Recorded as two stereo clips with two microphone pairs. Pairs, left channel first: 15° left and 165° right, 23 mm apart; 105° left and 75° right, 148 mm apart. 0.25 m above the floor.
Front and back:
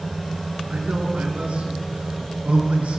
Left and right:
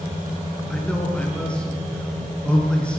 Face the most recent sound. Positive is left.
turn(degrees=-175)